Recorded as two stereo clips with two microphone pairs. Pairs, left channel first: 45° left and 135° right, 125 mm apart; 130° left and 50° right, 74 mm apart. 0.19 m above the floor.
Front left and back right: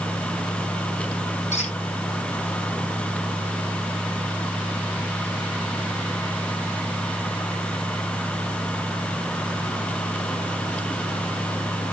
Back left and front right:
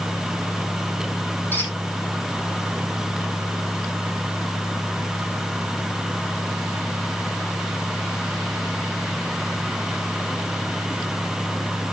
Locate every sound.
1.5 s a squeak: 65° left, 3.5 m